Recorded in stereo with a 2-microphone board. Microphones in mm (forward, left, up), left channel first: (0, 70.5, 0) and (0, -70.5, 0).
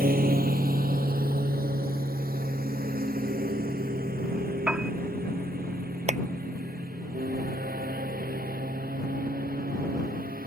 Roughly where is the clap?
Right.